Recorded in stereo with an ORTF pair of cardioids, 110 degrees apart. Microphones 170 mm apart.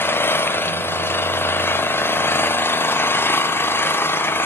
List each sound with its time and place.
0.0 s an engine running: 15° left, 1.3 m